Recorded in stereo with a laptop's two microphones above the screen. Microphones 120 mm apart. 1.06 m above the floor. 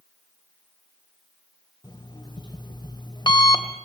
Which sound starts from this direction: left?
An alarm clock, at 1.8 s.